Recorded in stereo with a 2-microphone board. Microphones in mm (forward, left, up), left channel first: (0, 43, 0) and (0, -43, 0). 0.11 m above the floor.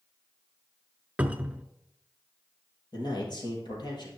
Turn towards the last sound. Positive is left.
turn(degrees=55)  # may be behind; listen again after turning